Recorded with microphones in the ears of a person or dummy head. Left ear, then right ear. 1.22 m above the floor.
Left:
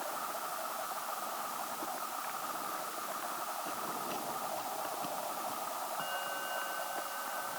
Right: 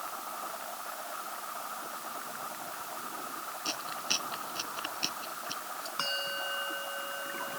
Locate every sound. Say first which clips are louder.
3.6 s chewing: right 4 dB; 65° right (ahead or behind)
6.0 s a bell: right 9 dB; 75° right (ahead or behind)